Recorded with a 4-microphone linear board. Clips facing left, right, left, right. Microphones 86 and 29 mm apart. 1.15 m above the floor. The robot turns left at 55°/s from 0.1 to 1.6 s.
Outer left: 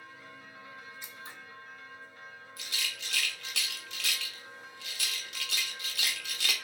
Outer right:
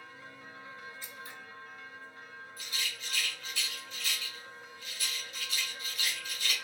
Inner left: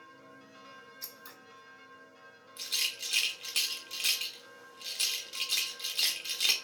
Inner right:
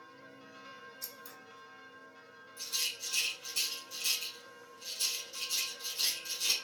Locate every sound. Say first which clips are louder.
1.0 s scissors: even, even; 20° left (ahead or behind), 0.8 m; by 1.4 s 35° left (ahead or behind), 0.8 m
2.6 s a rattle: outer left 1 dB, inner left 4 dB; 80° left, 0.8 m